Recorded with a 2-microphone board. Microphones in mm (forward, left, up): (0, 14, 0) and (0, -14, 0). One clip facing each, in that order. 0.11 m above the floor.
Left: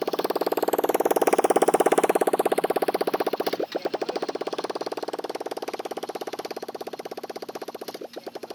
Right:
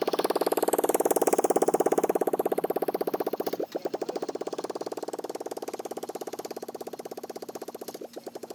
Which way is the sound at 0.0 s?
5° right (ahead or behind).